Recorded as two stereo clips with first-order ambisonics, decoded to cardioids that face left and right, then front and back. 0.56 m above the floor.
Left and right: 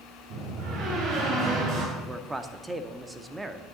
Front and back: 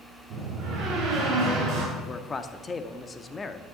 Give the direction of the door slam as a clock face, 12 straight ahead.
4 o'clock.